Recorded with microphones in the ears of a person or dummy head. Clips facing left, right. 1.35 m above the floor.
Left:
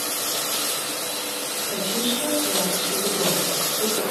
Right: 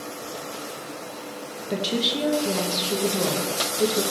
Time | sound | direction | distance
1.7 | a woman speaking | 55° right (ahead or behind) | 1.1 m